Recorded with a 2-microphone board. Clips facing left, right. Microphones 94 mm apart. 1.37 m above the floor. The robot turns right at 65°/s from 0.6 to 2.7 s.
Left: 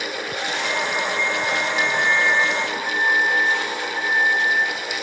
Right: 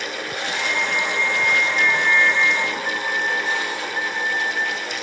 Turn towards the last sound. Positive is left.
turn(degrees=-145)